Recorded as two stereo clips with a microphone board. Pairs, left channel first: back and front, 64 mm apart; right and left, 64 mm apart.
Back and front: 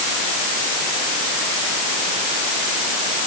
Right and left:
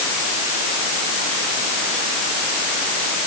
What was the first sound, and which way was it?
Only background noise.